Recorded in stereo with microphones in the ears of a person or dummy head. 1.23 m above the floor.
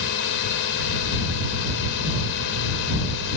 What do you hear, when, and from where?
0.0 s a drone: 65° left (ahead or behind)